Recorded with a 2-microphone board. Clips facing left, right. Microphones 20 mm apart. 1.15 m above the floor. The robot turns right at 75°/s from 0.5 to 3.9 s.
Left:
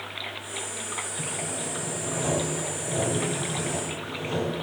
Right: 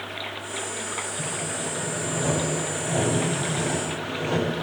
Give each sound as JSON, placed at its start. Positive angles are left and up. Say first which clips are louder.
{"t": 1.2, "sound": "sawing", "louder": "right 2 dB", "azimuth_deg": 100, "distance_m": 1.8}